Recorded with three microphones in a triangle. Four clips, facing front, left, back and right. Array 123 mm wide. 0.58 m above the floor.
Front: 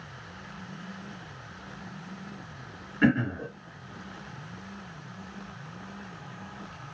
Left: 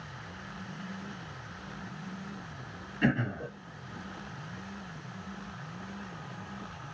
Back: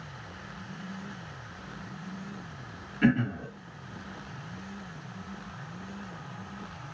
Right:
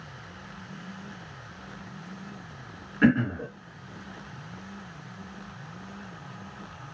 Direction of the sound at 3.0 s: 60° right.